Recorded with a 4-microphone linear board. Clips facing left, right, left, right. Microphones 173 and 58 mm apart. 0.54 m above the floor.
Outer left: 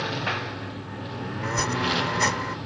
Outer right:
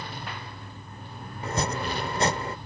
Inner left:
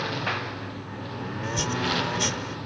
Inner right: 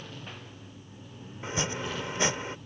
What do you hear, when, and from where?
0.0 s a lawn mower: 75° left (ahead or behind); by 2.7 s 85° left
1.4 s chopping: 30° right (ahead or behind)